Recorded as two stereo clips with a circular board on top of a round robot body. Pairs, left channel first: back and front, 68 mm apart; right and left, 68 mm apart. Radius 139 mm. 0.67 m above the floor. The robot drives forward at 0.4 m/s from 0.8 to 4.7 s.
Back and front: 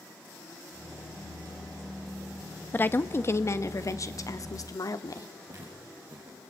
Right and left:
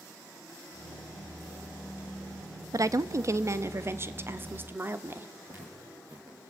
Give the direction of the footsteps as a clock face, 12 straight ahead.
11 o'clock.